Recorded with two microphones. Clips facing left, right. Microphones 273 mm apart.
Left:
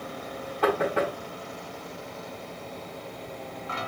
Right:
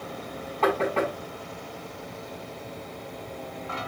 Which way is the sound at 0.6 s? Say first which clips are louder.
Even; 15° left (ahead or behind).